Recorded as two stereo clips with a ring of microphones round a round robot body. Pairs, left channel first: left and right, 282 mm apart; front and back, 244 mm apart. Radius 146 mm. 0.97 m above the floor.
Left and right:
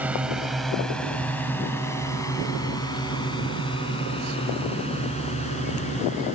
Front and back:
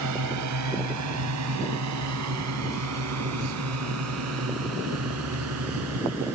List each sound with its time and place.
0.0 s a drone: 175° right; by 6.4 s 155° left